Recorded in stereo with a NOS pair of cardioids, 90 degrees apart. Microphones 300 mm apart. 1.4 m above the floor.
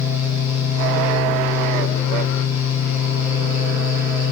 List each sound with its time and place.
0.0 s a fan: 70° left, 1.1 m